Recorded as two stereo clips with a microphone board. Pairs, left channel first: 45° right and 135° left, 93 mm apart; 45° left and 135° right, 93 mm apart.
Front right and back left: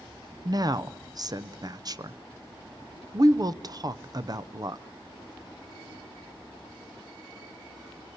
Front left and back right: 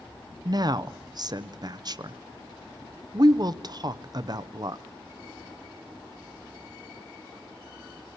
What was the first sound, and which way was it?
A woman speaking, straight behind.